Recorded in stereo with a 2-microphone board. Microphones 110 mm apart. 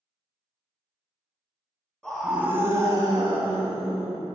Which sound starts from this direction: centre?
A scream, at 2.0 s.